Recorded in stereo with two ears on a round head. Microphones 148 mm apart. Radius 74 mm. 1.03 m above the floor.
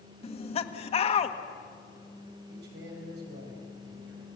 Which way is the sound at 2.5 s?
65° right (ahead or behind).